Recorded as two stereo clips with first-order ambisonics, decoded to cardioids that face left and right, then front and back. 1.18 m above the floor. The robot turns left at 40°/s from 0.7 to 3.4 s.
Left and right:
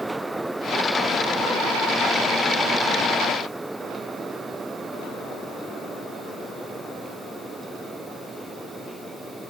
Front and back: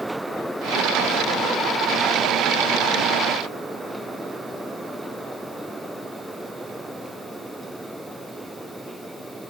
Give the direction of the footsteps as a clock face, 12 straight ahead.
No footsteps in this recording.